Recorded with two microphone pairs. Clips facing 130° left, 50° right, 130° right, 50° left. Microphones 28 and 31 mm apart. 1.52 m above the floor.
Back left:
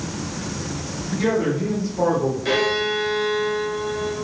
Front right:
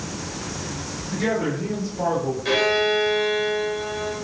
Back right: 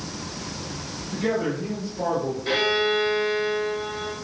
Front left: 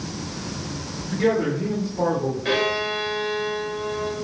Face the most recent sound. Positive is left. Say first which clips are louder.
# front right 3 dB, back right 2 dB
turn(degrees=45)